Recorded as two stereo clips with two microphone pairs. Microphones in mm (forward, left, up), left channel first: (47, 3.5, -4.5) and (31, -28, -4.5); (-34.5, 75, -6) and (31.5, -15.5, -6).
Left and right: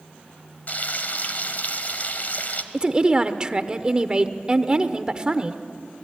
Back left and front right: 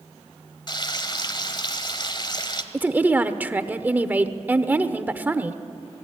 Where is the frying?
85° left, 1.8 m.